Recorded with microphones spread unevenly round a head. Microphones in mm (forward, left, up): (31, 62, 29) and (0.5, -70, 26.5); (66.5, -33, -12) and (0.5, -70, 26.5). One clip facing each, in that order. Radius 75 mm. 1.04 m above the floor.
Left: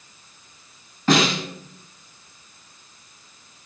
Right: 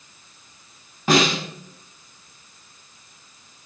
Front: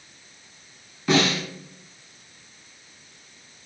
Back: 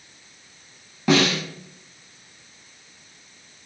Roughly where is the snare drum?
Behind.